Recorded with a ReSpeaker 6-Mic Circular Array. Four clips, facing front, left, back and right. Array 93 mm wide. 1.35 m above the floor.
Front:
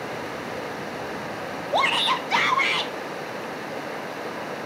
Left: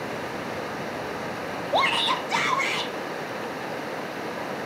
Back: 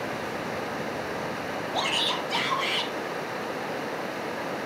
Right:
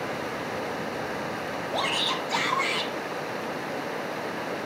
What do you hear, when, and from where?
1.7 s a shout: 45° left, 0.7 m; by 2.9 s 5° left, 1.7 m